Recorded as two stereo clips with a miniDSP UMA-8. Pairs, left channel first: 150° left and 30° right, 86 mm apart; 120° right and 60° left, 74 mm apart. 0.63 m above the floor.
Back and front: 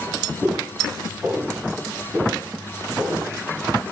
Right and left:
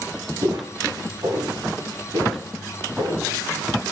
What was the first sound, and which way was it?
Footsteps, 50° left.